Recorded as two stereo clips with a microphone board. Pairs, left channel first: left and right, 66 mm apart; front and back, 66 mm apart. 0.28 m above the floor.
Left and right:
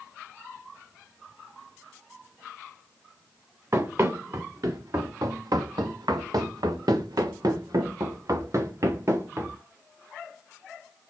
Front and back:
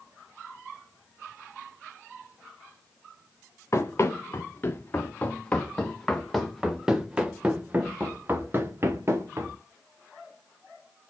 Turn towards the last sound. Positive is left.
turn(degrees=-135)